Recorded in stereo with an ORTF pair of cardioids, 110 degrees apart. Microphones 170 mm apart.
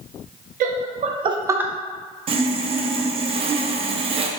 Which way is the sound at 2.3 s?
35° right.